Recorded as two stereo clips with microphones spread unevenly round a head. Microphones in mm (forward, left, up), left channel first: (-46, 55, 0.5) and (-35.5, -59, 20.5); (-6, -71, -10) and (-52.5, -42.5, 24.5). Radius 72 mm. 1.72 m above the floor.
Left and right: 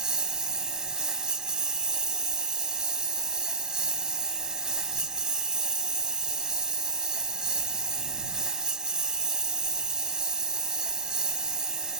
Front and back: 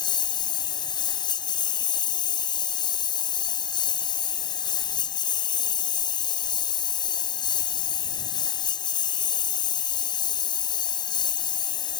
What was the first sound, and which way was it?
A lawn mower, 5° right.